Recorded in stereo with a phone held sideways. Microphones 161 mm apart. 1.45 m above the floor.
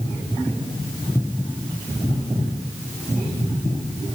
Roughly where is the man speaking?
No man speaking in this recording.